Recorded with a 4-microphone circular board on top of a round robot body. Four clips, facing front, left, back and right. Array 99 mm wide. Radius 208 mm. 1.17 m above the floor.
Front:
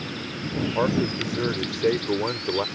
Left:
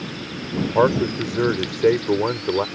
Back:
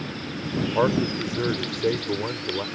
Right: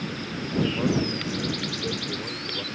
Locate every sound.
0.6 s a man speaking: 100° left; by 2.6 s 70° left